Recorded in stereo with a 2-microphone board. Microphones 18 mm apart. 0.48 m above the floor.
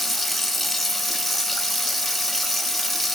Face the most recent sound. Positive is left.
turn(degrees=10)  # may be behind; listen again after turning